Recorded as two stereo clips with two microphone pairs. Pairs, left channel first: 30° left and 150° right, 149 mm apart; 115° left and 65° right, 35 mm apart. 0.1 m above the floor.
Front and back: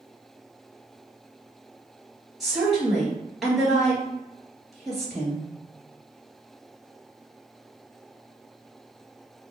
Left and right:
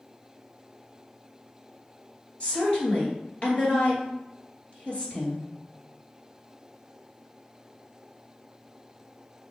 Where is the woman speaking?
125° left, 2.0 m.